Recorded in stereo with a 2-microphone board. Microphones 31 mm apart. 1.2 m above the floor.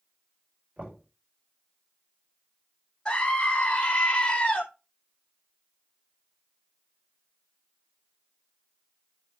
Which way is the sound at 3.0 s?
20° left (ahead or behind).